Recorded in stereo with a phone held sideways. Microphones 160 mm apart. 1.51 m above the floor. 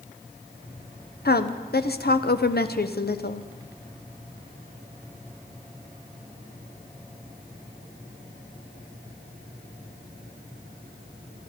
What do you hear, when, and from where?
1.2 s a woman speaking: 80° left, 0.9 m